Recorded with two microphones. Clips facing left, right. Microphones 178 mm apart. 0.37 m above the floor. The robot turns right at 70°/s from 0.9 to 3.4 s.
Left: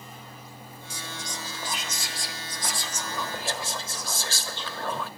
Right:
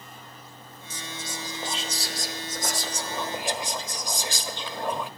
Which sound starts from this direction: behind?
Whispering, at 0.9 s.